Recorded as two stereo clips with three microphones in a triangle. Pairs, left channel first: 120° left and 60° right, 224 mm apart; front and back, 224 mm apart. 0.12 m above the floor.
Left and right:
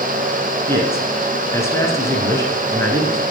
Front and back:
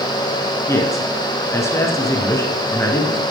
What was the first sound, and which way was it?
A man speaking, 60° left.